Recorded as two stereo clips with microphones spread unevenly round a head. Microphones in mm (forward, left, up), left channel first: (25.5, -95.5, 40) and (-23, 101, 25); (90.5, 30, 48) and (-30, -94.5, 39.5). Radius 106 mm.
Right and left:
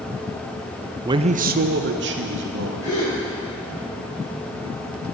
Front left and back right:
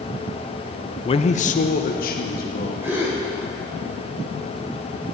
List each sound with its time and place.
1.1 s a man speaking: 65° left, 0.5 m; by 3.0 s 85° left, 2 m
2.8 s a gasp: 60° right, 5 m